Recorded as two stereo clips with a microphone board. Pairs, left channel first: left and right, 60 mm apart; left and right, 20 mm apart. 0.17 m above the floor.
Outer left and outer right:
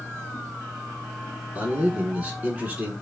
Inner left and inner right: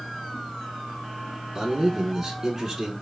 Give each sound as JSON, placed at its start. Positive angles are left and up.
{"t": 1.6, "sound": "a man speaking", "side_deg": -25, "distance_m": 1.4}